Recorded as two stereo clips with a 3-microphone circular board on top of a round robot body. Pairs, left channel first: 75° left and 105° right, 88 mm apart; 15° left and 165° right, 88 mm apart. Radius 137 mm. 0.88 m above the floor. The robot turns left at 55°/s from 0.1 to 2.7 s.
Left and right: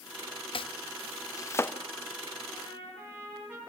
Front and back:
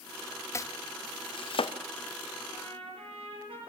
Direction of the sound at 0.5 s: 70° left.